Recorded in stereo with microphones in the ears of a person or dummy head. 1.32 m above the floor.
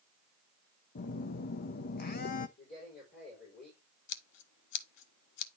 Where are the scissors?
60° left (ahead or behind), 1.1 m.